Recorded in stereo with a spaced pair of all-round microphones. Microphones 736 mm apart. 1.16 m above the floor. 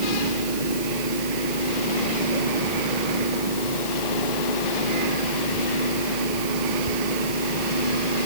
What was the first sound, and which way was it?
A fan, 85° left.